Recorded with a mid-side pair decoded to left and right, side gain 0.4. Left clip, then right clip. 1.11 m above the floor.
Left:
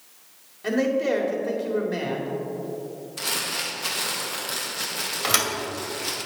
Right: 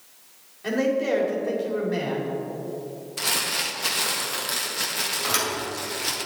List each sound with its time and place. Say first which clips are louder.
0.6 s a man speaking: even; 15° left, 3 m
3.2 s crumpling: right 2 dB; 25° right, 1.5 m
5.2 s a thud: left 4 dB; 45° left, 2 m